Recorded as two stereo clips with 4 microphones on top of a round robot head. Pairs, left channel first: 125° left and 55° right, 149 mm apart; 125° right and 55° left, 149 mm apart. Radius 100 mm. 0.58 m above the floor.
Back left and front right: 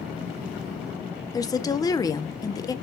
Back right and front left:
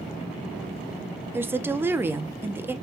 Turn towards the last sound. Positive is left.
turn(degrees=105)